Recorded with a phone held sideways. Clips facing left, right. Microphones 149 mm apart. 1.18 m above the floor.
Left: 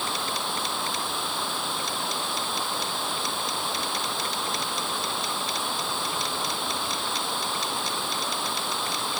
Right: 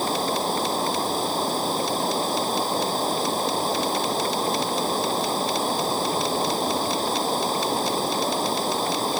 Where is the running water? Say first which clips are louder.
Right 7 dB; 40° right (ahead or behind).